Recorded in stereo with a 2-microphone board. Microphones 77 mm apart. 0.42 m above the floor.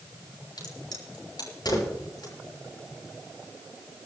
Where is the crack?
70° left (ahead or behind), 6.5 m.